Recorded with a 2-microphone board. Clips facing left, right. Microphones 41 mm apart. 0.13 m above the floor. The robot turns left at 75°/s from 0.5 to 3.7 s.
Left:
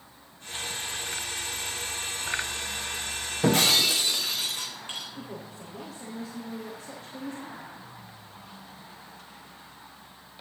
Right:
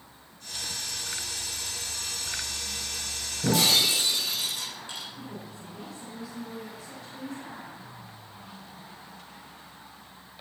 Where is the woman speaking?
30° left (ahead or behind), 7 m.